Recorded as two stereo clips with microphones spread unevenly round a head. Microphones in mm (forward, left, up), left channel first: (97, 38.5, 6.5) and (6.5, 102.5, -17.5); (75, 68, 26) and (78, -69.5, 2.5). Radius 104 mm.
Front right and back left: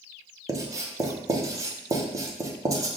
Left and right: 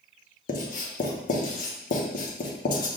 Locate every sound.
0.5 s writing: 105° left, 0.7 m